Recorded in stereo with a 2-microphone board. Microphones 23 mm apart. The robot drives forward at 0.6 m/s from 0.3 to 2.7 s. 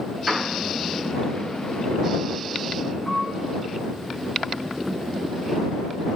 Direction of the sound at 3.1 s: 50° left (ahead or behind).